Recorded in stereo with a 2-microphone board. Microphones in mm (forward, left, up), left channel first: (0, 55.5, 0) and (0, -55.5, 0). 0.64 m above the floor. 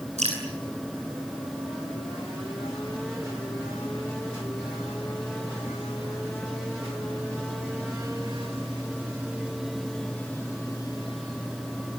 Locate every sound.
0.2 s dripping: 80° right, 9.5 m